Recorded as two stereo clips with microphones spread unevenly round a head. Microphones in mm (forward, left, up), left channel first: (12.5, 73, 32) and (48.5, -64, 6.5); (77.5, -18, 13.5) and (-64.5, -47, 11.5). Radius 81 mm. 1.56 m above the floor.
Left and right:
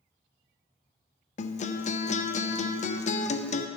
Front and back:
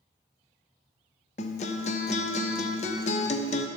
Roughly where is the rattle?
I don't hear a rattle.